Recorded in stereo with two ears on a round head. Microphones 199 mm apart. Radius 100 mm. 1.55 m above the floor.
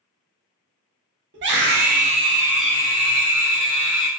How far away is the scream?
About 0.8 m.